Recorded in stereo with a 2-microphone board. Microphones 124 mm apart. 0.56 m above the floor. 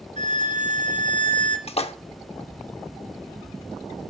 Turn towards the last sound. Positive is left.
turn(degrees=55)  # may be behind; listen again after turning